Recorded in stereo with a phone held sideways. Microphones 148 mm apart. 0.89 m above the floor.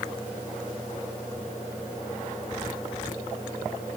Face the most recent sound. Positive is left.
No sound to turn to.